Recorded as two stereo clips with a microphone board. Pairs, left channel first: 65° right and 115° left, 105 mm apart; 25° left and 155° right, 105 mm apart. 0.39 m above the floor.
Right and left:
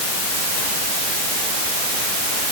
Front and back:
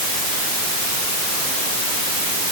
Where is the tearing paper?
No tearing paper in this recording.